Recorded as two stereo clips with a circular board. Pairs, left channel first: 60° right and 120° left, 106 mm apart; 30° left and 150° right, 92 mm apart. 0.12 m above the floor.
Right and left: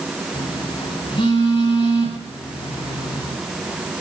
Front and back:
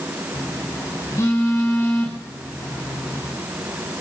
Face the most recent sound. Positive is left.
turn(degrees=-25)